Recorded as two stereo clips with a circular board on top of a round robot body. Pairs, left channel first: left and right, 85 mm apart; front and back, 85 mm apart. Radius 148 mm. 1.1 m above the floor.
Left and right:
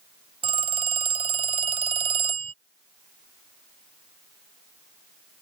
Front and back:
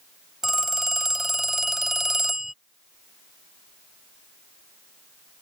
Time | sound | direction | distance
0.4 | a phone ringing | 95° right | ?